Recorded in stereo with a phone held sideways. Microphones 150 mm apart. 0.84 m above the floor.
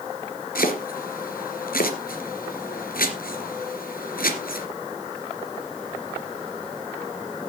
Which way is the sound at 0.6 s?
75° left (ahead or behind).